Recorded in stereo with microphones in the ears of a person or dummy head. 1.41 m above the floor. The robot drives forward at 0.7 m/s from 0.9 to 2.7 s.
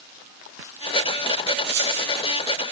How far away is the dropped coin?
About 6.5 m.